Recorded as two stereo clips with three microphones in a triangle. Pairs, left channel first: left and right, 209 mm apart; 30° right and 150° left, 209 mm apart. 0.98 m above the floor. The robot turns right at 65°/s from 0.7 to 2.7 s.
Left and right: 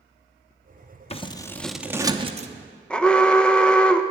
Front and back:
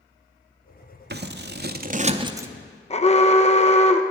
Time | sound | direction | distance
1.1 | scissors | 140° left | 0.5 m
2.9 | an alarm | 5° left | 0.5 m